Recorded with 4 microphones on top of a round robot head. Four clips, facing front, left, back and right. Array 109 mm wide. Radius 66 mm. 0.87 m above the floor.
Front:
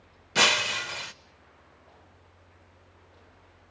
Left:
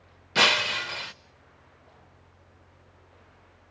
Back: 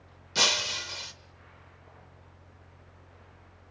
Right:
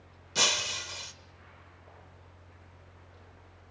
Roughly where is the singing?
I don't hear singing.